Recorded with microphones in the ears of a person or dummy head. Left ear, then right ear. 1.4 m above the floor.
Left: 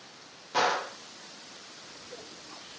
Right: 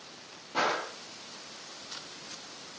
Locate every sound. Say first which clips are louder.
0.5 s a gunshot: left 3 dB; 60° left (ahead or behind), 2.0 m